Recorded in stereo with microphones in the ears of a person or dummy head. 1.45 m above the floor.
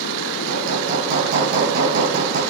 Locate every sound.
0.5 s hammering: 40° right (ahead or behind), 2.5 m